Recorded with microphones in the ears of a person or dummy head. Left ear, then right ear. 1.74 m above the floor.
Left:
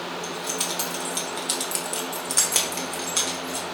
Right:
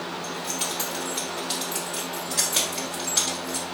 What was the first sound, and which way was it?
Keys jangling, 50° left (ahead or behind).